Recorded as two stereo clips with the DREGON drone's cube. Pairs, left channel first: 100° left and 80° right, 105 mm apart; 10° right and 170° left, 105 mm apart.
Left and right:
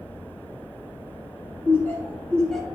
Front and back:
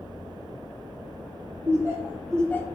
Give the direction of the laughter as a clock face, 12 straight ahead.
7 o'clock.